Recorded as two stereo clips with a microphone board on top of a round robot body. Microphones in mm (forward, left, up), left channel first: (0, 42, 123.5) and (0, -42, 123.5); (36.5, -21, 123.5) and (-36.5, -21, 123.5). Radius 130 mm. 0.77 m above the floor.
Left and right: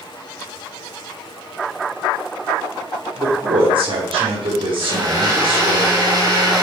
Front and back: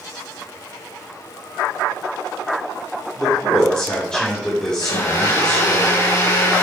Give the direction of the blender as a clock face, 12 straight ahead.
2 o'clock.